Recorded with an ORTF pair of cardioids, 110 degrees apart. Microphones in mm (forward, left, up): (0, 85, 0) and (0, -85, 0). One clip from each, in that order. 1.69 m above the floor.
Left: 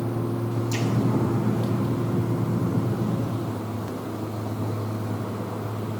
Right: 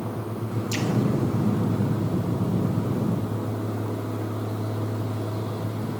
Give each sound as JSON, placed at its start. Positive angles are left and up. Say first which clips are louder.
{"t": 0.7, "sound": "an explosion", "louder": "right 1 dB", "azimuth_deg": -30, "distance_m": 1.4}